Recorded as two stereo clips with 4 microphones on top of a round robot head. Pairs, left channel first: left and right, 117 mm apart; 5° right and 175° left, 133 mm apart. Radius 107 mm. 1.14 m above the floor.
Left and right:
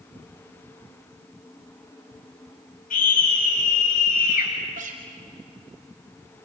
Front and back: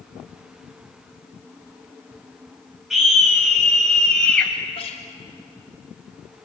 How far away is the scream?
About 9.5 m.